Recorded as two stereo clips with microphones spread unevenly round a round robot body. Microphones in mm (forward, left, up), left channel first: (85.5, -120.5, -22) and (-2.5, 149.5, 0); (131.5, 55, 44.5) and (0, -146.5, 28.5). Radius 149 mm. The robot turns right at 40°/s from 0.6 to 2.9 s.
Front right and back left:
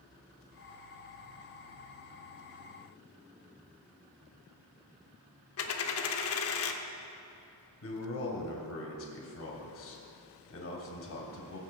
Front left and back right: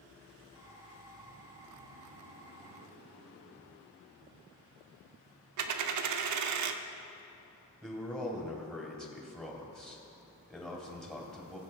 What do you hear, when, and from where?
5.6 s a dropped coin: 120° right, 0.6 m
7.8 s a man speaking: 30° right, 2.5 m